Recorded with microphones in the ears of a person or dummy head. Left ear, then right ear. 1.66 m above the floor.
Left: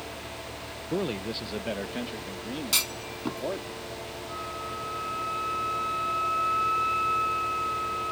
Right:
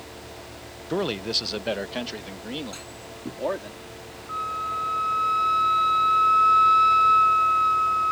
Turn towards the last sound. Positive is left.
turn(degrees=-40)  # may be behind; listen again after turning